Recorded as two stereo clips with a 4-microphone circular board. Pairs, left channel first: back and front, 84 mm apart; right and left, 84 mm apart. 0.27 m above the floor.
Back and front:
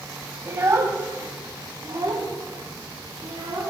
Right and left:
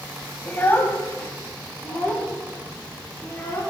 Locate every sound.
0.5 s a child speaking: 40° right, 0.9 m; by 3.6 s 30° right, 2.5 m